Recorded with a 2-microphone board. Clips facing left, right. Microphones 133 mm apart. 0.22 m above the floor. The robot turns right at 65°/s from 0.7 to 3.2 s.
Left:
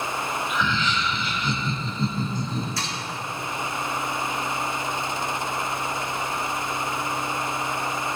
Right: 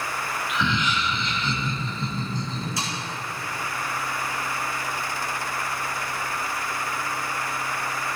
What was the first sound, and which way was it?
Laughter, 30° right.